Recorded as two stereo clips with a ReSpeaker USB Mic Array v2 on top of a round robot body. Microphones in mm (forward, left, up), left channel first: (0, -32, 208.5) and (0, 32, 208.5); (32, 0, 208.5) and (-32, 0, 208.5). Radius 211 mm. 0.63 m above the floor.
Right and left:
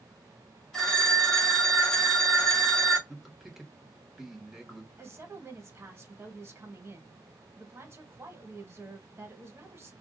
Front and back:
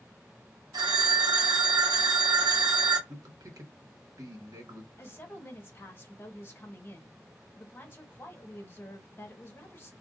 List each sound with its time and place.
0.7 s a phone ringing: 175° right, 1.1 m
3.1 s a man speaking: 175° left, 1.4 m
5.0 s a woman speaking: 50° left, 1.2 m